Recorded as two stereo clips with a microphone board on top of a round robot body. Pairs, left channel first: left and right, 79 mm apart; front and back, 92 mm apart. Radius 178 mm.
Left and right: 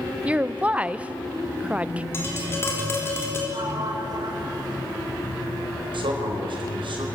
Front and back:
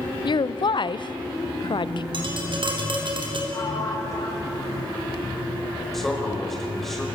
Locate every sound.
0.2 s a woman speaking: 20° right, 1.0 m
2.1 s tapping: 150° left, 4 m
3.5 s a sliding door: 55° right, 5.5 m
5.9 s a man speaking: 90° right, 5 m